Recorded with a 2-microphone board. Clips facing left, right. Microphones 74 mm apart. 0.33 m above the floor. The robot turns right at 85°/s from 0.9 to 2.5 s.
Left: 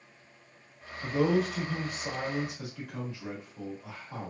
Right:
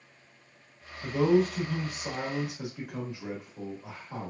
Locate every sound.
1.0 s a man speaking: 20° left (ahead or behind), 1.1 m; by 4.3 s 20° right (ahead or behind), 1.1 m